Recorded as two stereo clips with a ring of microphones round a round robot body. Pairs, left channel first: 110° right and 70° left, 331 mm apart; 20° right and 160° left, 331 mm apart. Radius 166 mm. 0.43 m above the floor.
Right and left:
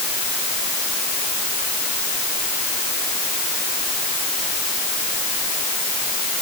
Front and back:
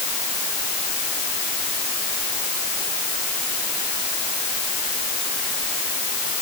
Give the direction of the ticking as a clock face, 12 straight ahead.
I don't hear ticking.